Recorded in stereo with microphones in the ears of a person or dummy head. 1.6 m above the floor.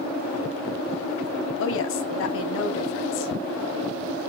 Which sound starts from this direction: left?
A woman speaking, at 1.6 s.